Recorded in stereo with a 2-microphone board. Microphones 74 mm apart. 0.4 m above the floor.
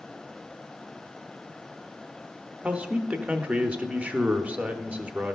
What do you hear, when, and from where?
2.6 s a man speaking: 20° right (ahead or behind), 0.8 m